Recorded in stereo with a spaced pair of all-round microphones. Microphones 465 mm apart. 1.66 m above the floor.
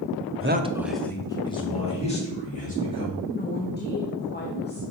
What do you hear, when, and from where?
0.4 s a man speaking: 35° right (ahead or behind), 0.5 m; by 3.1 s 20° left (ahead or behind), 4 m
3.2 s a woman speaking: 20° left (ahead or behind), 0.9 m